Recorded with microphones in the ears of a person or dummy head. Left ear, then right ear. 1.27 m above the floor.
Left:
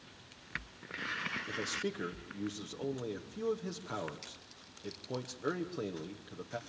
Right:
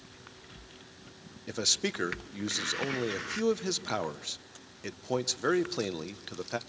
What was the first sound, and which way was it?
A man speaking, 55° right (ahead or behind).